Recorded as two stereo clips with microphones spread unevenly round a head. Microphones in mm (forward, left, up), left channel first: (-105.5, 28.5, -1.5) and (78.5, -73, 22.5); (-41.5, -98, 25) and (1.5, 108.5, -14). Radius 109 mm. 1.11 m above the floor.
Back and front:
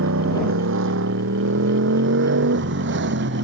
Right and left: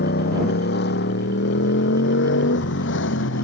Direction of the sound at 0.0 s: 55° right.